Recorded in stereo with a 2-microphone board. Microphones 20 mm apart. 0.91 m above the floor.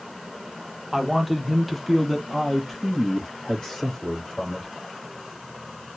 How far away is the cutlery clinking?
I don't hear cutlery clinking.